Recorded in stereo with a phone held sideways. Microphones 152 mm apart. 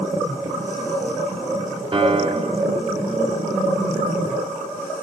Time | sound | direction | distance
1.9 | a piano | 35° right (ahead or behind) | 0.7 m